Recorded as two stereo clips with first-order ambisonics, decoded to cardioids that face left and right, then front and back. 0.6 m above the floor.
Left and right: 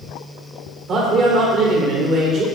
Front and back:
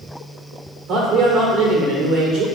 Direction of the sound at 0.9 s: 140° right.